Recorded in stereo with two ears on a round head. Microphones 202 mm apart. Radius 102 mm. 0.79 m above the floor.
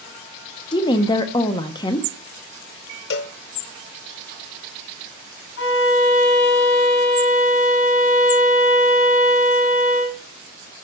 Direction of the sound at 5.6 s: 55° left (ahead or behind).